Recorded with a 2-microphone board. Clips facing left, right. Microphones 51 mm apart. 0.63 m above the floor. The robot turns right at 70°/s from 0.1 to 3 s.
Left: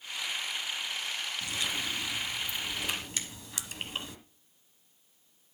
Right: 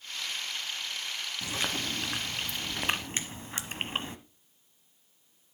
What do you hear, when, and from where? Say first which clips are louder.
1.4 s chewing: right 3 dB; 150° right, 1.0 m; by 4.2 s 40° right, 1.0 m
3.2 s a finger snap: right 3 dB; 35° right (ahead or behind), 2 m